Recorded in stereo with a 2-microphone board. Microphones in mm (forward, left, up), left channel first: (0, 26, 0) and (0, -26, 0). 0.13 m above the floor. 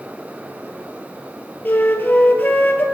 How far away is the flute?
About 1.4 m.